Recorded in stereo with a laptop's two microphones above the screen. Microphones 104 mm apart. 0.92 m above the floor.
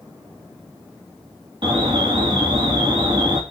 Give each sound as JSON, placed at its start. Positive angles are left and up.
{"t": 1.6, "sound": "an alarm", "side_deg": -55, "distance_m": 2.5}